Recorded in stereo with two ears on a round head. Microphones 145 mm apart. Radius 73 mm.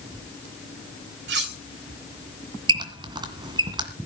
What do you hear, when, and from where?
1.3 s cutlery clinking: 70° right (ahead or behind), 3 m
2.7 s a squeak: 30° right (ahead or behind), 2 m